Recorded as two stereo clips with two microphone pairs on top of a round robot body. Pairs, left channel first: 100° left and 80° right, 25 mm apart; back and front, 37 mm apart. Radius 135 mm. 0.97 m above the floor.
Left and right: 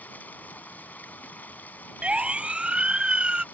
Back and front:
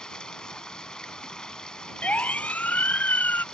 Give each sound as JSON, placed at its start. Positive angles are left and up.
{"t": 0.0, "sound": "running water", "azimuth_deg": 110}
{"t": 2.0, "sound": "a siren", "azimuth_deg": -130}